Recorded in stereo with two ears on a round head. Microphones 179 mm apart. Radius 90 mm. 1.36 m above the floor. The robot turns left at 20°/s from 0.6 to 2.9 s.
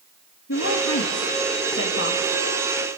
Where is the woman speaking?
90° left, 3 m; by 2.4 s 55° left, 3 m.